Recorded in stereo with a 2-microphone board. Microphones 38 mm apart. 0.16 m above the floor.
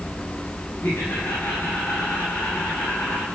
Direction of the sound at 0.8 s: 70° left (ahead or behind).